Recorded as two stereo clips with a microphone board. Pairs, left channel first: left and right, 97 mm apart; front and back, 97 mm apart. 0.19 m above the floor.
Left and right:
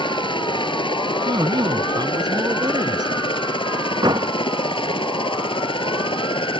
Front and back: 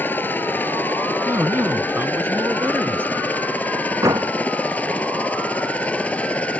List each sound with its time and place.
0.0 s a helicopter: 70° left; by 6.6 s 75° left
1.2 s a man speaking: 120° right
4.0 s a door slam: 130° right